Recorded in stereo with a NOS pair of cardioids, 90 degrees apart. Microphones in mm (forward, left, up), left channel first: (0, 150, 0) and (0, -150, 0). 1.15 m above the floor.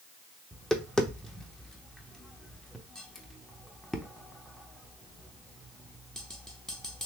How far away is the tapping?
About 0.7 m.